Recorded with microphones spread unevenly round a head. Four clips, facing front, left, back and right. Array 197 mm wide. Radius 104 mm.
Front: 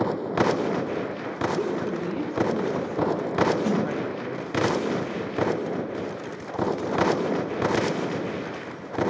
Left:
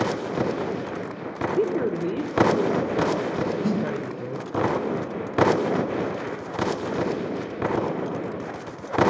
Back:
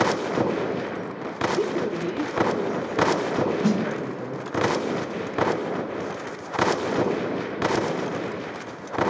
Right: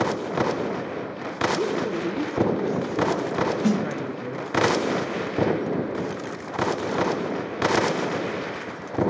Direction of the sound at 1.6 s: 120° left.